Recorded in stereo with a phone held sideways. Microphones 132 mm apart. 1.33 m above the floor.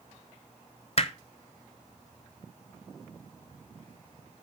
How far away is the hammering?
About 0.6 m.